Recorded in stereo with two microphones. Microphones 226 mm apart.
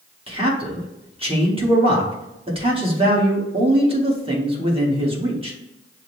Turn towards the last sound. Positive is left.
turn(degrees=-25)  # may be behind; listen again after turning